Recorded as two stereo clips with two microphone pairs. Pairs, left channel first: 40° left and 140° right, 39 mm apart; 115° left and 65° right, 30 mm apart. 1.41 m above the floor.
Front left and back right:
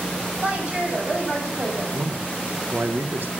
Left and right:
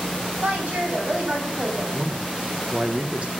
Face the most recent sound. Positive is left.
turn(degrees=-115)